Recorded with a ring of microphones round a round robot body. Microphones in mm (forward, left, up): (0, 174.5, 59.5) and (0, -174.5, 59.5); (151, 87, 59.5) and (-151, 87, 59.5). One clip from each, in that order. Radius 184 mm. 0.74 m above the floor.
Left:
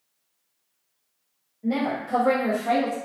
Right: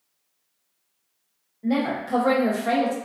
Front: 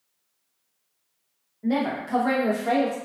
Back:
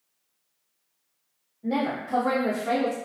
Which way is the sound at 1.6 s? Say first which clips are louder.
Right 1 dB, front 1 dB; 30° right.